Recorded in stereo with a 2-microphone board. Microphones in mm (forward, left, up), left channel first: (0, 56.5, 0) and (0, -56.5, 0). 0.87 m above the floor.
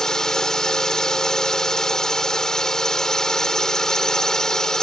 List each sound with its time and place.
0.0 s a drone: 5° left (ahead or behind)